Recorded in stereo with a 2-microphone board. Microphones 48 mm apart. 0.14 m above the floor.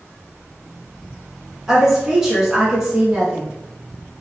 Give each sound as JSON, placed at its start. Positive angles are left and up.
{"t": 1.7, "sound": "a woman speaking", "side_deg": -10, "distance_m": 1.1}